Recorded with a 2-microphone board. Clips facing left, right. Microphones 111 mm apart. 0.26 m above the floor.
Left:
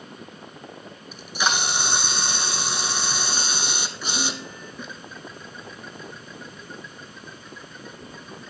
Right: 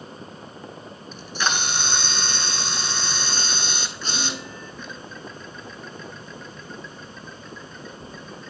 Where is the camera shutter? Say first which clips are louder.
Left 1 dB; 10° left (ahead or behind), 0.7 m.